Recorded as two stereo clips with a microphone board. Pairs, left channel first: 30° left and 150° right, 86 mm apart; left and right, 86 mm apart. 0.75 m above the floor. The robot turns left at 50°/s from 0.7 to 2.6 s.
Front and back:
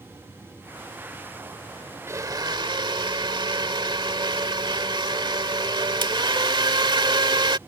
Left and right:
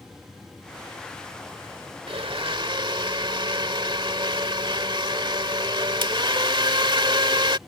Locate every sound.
2.1 s a blender: 90° right; by 7.6 s 120° right